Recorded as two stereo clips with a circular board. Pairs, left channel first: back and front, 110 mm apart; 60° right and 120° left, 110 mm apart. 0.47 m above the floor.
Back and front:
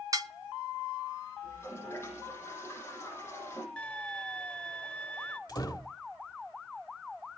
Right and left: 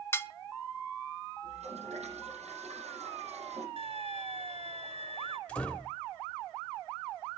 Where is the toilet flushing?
115° left, 8.5 m.